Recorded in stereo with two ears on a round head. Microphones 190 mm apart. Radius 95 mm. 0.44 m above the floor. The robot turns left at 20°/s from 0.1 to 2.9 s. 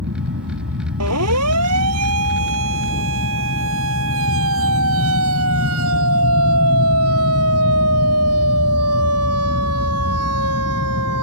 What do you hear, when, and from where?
0.0 s an aircraft: 80° right; by 11.2 s 135° right
1.0 s a siren: 80° right; by 11.2 s 85° right